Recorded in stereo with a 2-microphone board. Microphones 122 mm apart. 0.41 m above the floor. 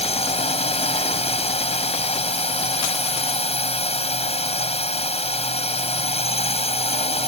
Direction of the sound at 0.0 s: 55° left (ahead or behind).